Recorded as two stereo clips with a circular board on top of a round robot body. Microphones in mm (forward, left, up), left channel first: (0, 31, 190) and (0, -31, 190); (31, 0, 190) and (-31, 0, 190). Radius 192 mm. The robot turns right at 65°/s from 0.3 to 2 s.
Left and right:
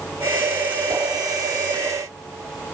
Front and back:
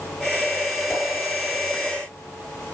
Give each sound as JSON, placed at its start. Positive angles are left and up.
{"t": 0.9, "sound": "a whoosh", "azimuth_deg": -75, "distance_m": 6.0}